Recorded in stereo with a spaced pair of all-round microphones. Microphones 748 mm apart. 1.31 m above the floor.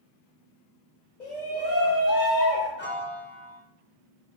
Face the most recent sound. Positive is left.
turn(degrees=15)  # may be behind; listen again after turning